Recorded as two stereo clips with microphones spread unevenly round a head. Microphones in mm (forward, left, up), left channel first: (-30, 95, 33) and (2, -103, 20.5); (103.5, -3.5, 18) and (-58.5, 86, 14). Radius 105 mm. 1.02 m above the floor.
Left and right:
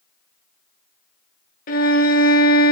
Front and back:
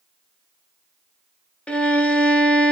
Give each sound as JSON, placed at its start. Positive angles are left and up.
{"t": 1.7, "sound": "a violin", "azimuth_deg": 55, "distance_m": 1.0}